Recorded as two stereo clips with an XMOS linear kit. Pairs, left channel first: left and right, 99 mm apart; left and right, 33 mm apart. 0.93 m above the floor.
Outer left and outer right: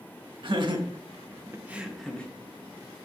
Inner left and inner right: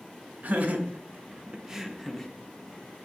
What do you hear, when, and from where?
0.4 s laughter: 55° right (ahead or behind), 1.4 m; by 2.3 s 15° left (ahead or behind), 0.8 m